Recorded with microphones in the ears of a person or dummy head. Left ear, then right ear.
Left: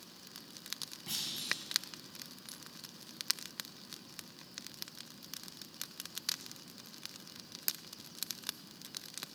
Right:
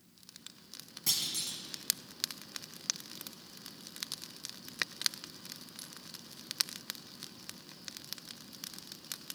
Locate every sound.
1.1 s a clunk: 60° right (ahead or behind), 0.9 m